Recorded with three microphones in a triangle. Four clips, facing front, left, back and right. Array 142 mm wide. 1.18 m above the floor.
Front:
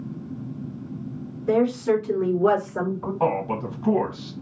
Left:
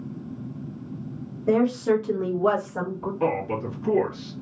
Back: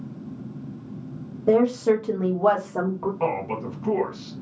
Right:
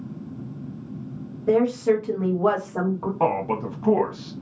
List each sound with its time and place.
1.5 s a woman speaking: 175° left, 1.1 m; by 3.1 s 135° right, 1.6 m
3.2 s a man speaking: 75° right, 1.1 m